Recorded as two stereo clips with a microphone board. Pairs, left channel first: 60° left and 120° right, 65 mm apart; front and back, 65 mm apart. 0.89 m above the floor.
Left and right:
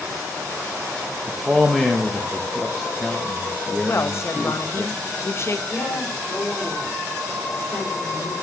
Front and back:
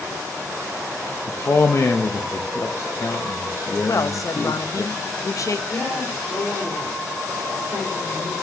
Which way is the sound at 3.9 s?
20° left.